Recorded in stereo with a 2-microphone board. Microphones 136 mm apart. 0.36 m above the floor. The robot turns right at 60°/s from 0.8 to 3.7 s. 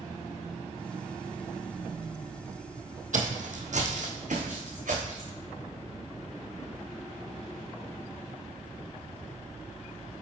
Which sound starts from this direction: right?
Footsteps, at 3.1 s.